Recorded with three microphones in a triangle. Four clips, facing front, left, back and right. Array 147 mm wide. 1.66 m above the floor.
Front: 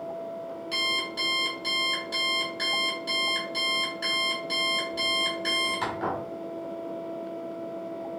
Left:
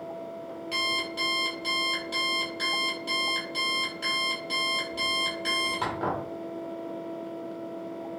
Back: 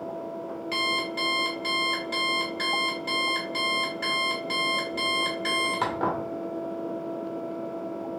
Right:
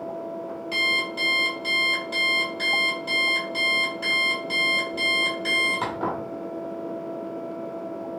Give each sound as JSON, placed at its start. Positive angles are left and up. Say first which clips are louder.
{"t": 0.7, "sound": "an alarm clock", "louder": "right 3 dB, back 5 dB", "azimuth_deg": 180, "distance_m": 2.0}